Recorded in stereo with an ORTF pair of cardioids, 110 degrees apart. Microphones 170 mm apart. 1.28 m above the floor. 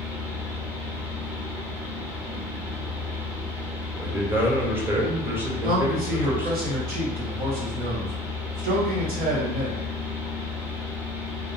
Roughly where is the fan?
Ahead.